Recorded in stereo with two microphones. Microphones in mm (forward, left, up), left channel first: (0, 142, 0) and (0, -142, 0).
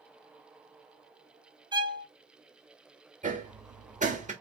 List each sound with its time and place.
1.7 s a violin: 15° right (ahead or behind), 0.6 m
3.2 s hammering: 25° right (ahead or behind), 1.0 m